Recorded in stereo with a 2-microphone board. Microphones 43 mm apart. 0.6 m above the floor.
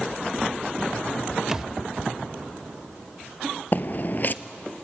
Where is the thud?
10° right (ahead or behind), 0.6 m.